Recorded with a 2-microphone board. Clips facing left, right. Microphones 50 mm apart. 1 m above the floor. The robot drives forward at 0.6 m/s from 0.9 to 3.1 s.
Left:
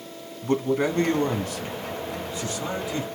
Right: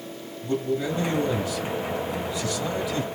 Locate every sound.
0.4 s a man speaking: 60° left (ahead or behind), 1.3 m; by 3.0 s 35° left (ahead or behind), 2 m